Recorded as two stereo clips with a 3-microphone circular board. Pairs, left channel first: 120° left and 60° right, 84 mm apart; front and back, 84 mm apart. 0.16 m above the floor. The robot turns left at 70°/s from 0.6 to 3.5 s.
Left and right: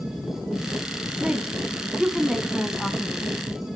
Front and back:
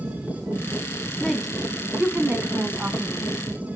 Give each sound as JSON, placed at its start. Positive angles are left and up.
{"t": 1.0, "sound": "a woman speaking", "azimuth_deg": -60, "distance_m": 1.1}